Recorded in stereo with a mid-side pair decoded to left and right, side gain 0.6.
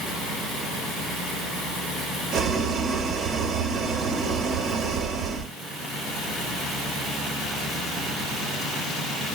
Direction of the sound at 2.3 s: 45° right.